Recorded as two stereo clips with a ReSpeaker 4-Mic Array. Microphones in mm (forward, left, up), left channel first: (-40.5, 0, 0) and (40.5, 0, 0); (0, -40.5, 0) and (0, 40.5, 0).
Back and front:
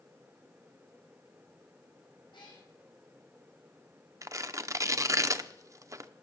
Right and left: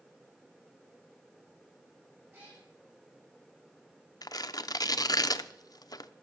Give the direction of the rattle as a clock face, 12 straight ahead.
I don't hear a rattle.